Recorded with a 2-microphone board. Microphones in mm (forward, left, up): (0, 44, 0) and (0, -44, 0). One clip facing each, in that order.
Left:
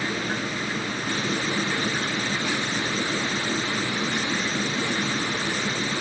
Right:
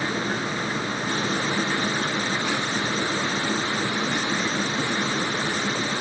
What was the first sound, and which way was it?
Only background noise.